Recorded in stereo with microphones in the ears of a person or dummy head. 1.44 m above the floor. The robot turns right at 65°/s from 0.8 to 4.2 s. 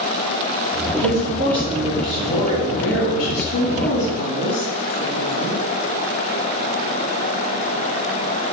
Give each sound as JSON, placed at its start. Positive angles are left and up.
{"t": 1.0, "sound": "a woman speaking", "azimuth_deg": -70, "distance_m": 3.0}